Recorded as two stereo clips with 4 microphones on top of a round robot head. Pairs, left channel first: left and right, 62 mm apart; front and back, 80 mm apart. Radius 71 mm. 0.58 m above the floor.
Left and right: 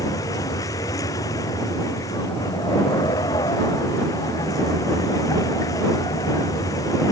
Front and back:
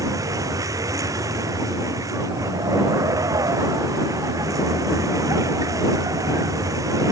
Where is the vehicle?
135° left.